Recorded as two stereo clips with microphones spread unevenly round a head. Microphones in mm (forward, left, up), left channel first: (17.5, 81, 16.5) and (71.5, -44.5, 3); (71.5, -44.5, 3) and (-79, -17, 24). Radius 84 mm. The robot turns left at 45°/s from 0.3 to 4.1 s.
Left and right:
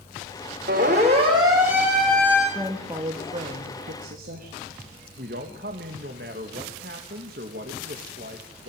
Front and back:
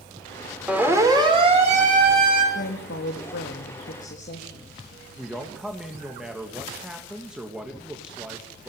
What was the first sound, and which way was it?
A siren, 110° right.